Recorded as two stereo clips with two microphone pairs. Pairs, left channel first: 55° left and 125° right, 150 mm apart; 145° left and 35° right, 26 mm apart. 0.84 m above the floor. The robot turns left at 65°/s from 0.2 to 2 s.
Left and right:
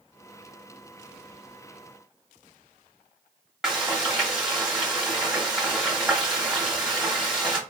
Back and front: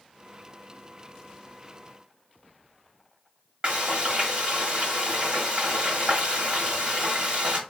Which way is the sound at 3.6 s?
35° right.